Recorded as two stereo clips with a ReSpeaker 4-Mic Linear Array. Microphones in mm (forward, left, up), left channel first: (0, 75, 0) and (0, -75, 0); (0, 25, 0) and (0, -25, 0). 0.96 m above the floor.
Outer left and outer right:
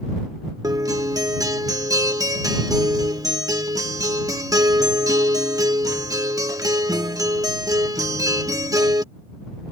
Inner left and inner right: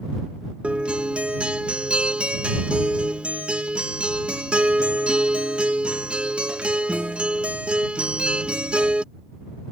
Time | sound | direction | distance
0.6 | a guitar | 25° right (ahead or behind) | ?